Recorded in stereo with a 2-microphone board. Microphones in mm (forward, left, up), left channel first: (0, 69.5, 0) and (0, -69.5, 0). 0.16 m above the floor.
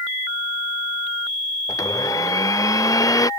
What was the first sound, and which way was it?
A blender, 25° left (ahead or behind).